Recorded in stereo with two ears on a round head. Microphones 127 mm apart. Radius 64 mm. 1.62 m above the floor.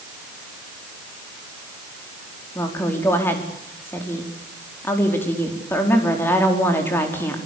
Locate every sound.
2.5 s a woman speaking: 15° left (ahead or behind), 4.5 m